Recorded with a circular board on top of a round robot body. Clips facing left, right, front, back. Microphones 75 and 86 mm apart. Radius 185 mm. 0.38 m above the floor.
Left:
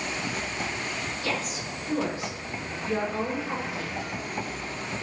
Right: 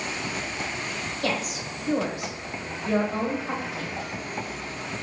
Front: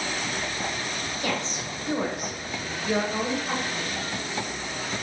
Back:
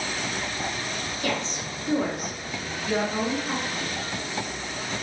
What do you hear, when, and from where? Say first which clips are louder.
1.2 s a woman speaking: right 5 dB, back 1 dB; 70° right, 1.9 m